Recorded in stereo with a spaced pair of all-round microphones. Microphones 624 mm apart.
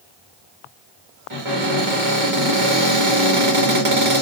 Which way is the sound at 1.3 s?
55° right (ahead or behind).